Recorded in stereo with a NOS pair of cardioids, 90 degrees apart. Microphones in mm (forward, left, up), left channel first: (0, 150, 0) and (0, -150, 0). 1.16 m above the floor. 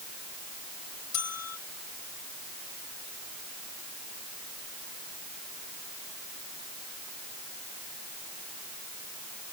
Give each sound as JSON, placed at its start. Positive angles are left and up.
{"t": 1.1, "sound": "a bell", "azimuth_deg": 65}